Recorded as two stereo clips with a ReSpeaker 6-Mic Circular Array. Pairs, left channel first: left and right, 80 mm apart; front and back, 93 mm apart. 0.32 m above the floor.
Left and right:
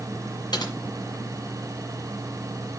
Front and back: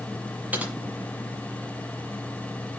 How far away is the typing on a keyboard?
About 1.8 m.